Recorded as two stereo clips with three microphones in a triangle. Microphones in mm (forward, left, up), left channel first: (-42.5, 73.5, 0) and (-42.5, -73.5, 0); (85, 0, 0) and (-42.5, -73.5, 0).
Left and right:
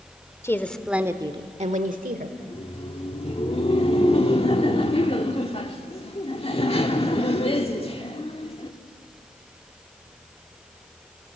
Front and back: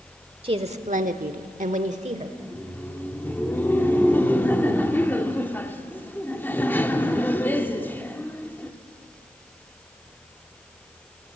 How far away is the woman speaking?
About 1.4 m.